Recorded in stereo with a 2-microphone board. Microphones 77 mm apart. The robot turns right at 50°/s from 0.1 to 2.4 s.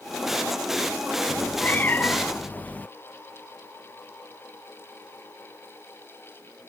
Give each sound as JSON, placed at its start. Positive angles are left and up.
{"t": 1.3, "sound": "a cat meowing", "side_deg": 20}